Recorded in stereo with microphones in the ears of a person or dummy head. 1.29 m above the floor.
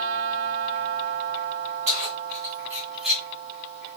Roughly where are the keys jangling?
Right.